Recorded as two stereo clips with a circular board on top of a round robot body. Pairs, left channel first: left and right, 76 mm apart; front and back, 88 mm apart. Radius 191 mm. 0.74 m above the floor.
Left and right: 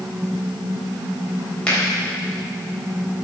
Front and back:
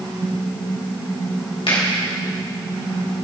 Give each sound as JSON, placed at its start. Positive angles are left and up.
{"t": 1.7, "sound": "a finger snap", "azimuth_deg": 15, "distance_m": 3.5}